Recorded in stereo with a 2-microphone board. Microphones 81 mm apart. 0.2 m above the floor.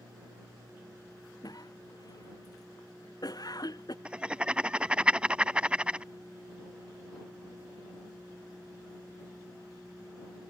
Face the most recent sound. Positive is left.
turn(degrees=-15)  # may be behind; listen again after turning